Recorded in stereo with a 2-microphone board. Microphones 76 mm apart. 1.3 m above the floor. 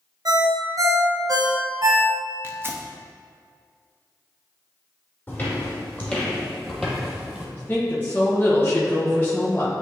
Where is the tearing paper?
30° right (ahead or behind), 0.7 m.